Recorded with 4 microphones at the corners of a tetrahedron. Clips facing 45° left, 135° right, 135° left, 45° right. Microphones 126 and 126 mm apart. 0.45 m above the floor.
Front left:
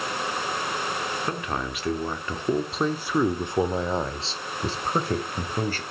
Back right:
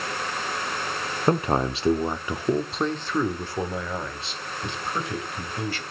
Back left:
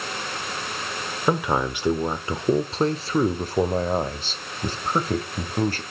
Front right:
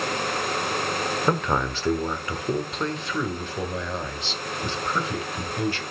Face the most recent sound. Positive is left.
turn(degrees=90)